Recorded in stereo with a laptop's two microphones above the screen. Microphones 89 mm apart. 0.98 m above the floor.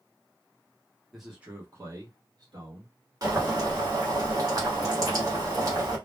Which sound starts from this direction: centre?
A man speaking, at 1.1 s.